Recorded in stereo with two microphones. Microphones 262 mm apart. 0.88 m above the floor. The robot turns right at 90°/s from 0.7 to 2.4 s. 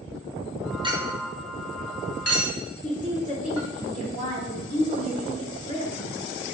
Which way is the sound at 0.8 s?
20° right (ahead or behind).